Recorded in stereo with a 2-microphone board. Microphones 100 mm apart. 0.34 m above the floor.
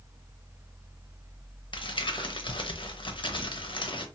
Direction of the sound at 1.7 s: 55° left (ahead or behind).